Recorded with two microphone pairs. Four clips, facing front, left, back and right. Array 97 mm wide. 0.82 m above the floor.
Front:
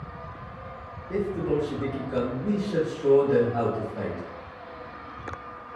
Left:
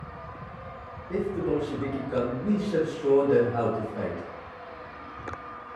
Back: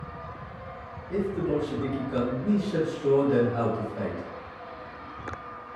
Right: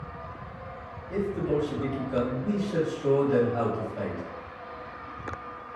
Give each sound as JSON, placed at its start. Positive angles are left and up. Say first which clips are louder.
{"t": 1.1, "sound": "a man speaking", "louder": "even, front 1 dB", "azimuth_deg": 60, "distance_m": 1.6}